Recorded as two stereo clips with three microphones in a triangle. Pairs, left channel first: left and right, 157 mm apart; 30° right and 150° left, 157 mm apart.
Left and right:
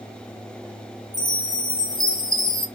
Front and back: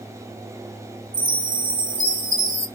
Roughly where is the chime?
Behind left.